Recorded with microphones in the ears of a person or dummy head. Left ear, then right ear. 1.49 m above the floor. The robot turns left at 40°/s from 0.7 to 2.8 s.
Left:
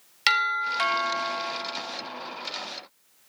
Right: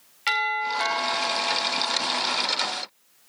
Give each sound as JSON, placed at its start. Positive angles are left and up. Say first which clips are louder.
{"t": 0.3, "sound": "a doorbell", "louder": "left 1 dB", "azimuth_deg": 85, "distance_m": 4.5}